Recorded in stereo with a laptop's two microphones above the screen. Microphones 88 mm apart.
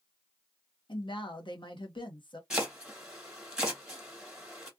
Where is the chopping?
10° right (ahead or behind), 1.7 m.